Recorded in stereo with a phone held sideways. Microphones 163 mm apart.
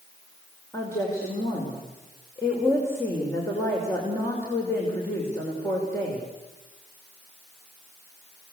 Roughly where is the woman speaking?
Centre.